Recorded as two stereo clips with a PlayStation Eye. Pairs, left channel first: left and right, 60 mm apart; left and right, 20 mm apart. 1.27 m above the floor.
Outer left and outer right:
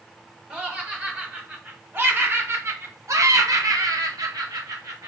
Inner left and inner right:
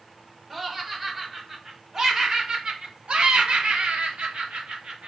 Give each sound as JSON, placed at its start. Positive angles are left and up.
{"t": 0.5, "sound": "laughter", "side_deg": -20, "distance_m": 2.0}